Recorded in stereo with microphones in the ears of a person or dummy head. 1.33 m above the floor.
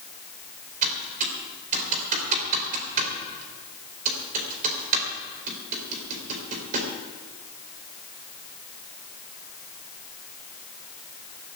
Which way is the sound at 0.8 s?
45° right (ahead or behind).